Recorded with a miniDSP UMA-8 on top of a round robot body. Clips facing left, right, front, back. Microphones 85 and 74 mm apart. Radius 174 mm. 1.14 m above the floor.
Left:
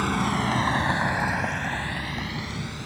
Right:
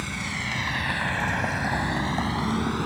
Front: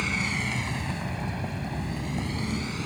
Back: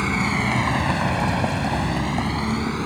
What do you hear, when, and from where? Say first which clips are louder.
0.0 s a vehicle: left 8 dB, back 7 dB; 130° left; by 2.9 s 130° right